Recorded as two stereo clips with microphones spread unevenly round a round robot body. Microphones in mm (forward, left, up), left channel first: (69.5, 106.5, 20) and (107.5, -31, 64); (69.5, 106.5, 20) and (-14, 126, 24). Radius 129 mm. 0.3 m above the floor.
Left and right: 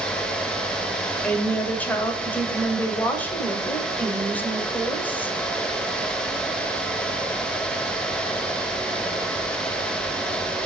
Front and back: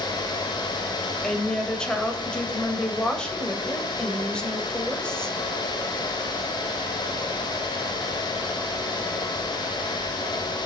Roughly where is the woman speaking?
Ahead left.